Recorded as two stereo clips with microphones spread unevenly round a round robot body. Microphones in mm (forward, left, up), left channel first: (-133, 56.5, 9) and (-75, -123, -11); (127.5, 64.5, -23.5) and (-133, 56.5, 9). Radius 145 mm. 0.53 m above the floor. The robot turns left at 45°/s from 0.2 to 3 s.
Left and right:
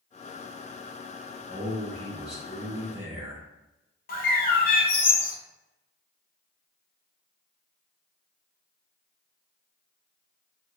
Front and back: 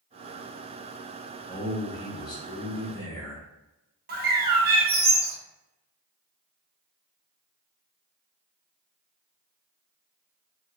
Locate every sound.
1.5 s a man speaking: 30° left, 0.7 m; by 3.4 s 40° right, 0.7 m
4.1 s a bird: 135° left, 0.7 m